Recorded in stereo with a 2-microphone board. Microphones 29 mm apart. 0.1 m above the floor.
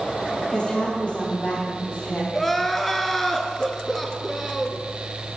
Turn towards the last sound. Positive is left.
turn(degrees=10)  # may be behind; listen again after turning